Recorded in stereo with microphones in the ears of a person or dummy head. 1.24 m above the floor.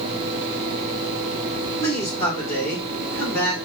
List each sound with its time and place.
1.8 s a man speaking: 10° left (ahead or behind), 1.7 m